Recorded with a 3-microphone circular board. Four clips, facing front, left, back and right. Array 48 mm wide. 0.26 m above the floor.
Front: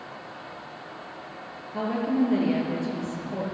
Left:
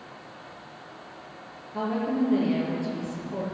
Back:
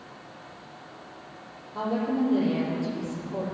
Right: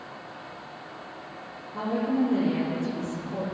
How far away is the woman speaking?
About 4.5 m.